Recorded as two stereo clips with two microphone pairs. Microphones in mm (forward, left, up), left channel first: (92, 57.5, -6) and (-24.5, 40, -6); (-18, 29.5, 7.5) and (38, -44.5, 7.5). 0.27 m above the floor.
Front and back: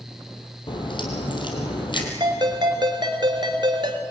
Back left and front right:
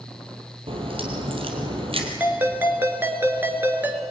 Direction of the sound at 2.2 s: 120° right.